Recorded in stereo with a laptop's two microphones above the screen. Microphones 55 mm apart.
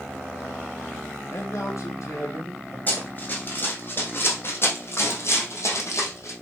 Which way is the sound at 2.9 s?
35° left (ahead or behind).